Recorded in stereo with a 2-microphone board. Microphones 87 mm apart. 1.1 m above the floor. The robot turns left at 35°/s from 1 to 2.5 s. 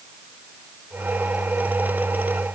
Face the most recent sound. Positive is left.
No sound to turn to.